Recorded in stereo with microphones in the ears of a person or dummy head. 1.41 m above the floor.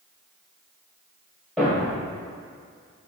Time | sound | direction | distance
1.6 | a thud | centre (ahead or behind) | 1.9 m